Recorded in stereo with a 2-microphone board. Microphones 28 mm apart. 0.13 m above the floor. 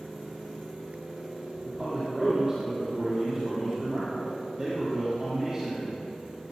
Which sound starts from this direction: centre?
A man speaking, at 1.6 s.